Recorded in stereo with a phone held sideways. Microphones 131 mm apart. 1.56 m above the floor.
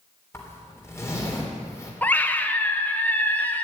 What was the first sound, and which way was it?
A zipper, 20° left (ahead or behind).